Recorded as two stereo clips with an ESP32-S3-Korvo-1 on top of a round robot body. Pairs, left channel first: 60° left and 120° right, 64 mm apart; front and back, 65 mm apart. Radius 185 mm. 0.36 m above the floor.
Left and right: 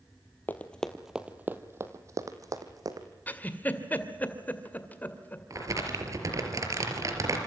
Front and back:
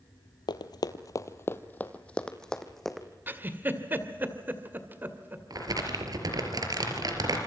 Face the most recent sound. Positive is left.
turn(degrees=-155)